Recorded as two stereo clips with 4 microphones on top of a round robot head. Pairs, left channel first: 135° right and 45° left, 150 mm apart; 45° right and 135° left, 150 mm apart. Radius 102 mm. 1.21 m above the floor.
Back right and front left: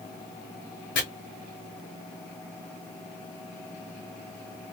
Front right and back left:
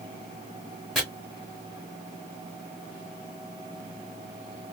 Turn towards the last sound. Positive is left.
turn(degrees=-135)